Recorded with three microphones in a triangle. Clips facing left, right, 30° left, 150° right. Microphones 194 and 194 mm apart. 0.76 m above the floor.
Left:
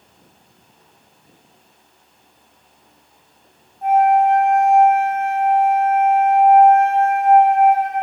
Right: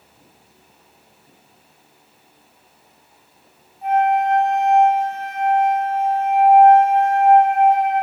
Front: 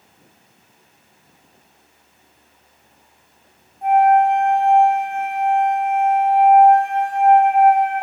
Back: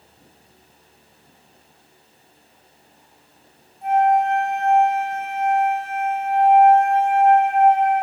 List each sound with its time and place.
3.8 s a flute: 55° left, 1.6 m